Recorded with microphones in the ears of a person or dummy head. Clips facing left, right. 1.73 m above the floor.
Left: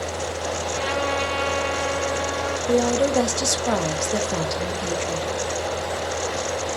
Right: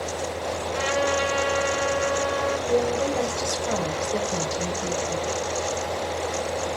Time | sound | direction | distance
0.7 | a trumpet | 20° right (ahead or behind) | 0.6 m
2.7 | a woman speaking | 65° left (ahead or behind) | 0.6 m